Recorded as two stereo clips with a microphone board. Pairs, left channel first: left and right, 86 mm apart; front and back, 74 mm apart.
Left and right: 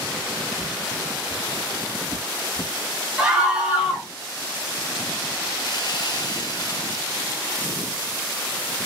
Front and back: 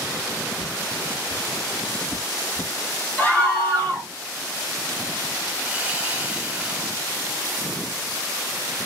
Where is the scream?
30° right, 1.2 m.